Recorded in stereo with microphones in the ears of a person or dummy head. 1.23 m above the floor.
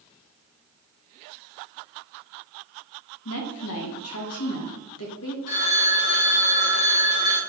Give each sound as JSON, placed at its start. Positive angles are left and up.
{"t": 3.2, "sound": "a woman speaking", "side_deg": 70, "distance_m": 1.3}
{"t": 5.5, "sound": "a phone ringing", "side_deg": 45, "distance_m": 1.7}